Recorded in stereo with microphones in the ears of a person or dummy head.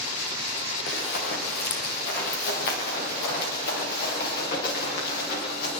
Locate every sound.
0.9 s running footsteps: 60° left (ahead or behind), 5.5 m; by 5.7 s 55° left (ahead or behind), 10 m